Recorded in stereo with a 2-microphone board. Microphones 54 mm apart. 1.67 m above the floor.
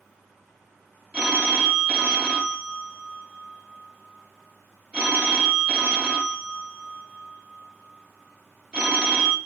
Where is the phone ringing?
20° right (ahead or behind), 1.1 m.